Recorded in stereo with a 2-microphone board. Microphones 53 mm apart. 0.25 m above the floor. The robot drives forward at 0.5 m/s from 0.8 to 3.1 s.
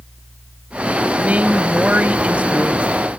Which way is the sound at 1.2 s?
30° right (ahead or behind).